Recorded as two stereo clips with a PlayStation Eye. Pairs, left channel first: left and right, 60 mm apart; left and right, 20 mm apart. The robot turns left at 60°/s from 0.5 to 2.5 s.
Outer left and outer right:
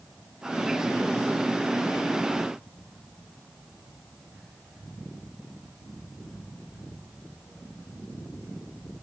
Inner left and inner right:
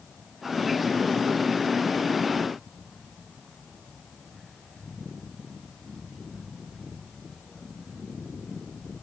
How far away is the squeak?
No squeak in this recording.